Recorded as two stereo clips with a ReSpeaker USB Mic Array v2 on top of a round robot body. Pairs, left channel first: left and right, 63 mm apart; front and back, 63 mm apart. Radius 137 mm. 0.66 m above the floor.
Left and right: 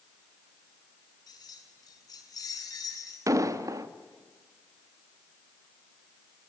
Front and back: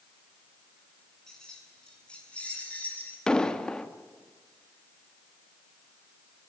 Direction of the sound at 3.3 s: 75° right.